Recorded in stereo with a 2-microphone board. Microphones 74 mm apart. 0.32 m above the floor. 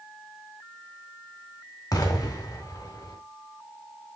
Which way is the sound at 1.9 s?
55° left (ahead or behind).